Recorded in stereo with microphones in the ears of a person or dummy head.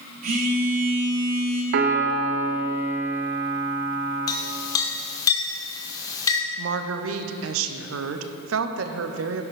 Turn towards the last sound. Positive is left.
turn(degrees=-75)  # may be behind; listen again after turning